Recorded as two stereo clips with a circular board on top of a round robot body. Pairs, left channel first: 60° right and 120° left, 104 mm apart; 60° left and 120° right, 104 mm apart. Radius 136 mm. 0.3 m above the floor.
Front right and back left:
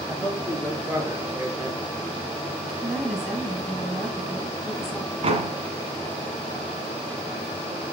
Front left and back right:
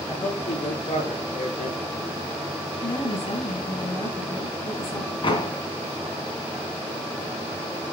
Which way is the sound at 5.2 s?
100° left.